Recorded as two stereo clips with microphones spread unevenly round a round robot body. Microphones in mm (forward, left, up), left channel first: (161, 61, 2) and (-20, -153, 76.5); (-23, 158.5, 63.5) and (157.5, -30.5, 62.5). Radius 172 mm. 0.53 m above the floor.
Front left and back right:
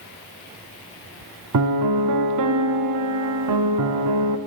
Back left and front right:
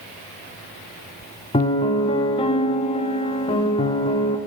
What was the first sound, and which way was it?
A piano, 160° right.